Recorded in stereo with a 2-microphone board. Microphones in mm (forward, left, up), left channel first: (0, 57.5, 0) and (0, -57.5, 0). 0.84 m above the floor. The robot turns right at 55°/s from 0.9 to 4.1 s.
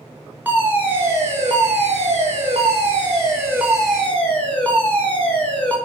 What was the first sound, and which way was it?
A fire alarm, 160° right.